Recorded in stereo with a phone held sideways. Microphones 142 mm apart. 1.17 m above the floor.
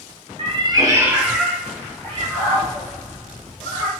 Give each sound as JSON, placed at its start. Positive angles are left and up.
{"t": 0.4, "sound": "a cat meowing", "side_deg": -45, "distance_m": 0.8}